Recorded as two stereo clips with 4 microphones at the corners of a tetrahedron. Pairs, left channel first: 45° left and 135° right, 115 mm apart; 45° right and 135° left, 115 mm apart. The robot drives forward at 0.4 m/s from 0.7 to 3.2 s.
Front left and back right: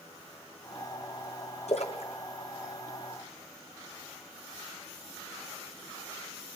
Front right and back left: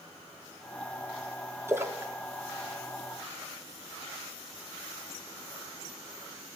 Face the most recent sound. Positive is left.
turn(degrees=75)